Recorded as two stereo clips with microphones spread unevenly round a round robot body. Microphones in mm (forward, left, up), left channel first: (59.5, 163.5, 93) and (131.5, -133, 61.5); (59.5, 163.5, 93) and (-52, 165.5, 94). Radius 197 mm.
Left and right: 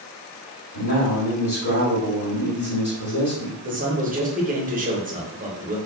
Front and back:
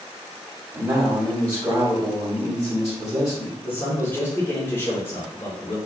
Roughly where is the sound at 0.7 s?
Behind left.